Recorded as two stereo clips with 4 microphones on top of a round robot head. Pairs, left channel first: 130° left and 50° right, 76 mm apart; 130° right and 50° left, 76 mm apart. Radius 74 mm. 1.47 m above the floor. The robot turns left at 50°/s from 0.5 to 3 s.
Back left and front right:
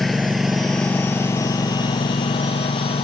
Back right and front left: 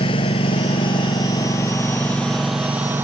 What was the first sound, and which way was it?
A lawn mower, 140° right.